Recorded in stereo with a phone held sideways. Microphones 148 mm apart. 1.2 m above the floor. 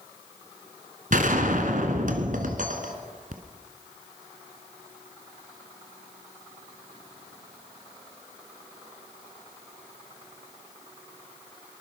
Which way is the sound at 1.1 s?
60° right (ahead or behind).